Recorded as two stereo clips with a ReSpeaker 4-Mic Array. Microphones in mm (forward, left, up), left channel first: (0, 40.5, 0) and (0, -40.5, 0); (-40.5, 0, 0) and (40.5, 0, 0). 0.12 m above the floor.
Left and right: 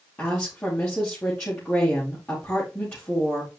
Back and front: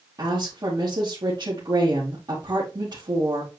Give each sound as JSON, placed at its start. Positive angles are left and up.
{"t": 0.2, "sound": "a woman speaking", "azimuth_deg": 20, "distance_m": 3.0}